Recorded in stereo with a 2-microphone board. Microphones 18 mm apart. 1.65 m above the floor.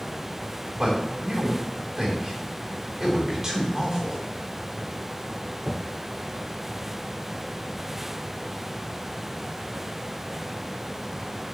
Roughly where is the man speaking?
Right.